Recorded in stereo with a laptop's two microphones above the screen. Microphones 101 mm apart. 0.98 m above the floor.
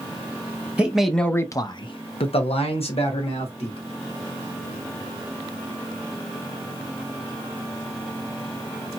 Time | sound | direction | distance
0.8 | a man speaking | 15° right (ahead or behind) | 0.7 m